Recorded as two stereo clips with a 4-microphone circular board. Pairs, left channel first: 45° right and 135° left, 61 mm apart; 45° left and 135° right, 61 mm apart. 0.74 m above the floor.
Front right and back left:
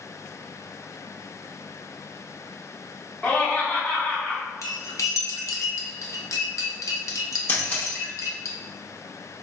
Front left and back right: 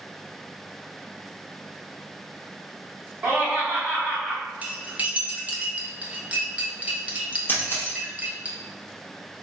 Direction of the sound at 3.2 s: 95° right.